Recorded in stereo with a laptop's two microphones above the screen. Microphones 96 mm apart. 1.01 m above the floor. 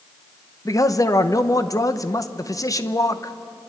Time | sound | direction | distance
0.7 | a man speaking | 35° left (ahead or behind) | 0.9 m